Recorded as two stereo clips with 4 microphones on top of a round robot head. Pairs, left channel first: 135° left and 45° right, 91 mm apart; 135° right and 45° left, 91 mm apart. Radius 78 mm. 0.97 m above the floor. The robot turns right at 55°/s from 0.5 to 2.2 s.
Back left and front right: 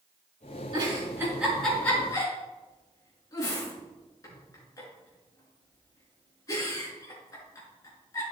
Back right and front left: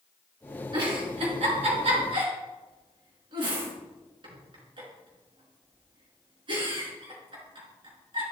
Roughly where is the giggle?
Ahead.